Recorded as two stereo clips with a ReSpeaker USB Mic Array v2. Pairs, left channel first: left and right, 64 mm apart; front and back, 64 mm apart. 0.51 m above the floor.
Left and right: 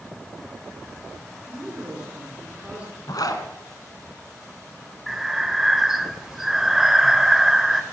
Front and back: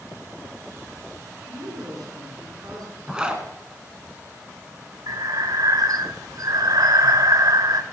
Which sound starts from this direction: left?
A zipper, at 3.1 s.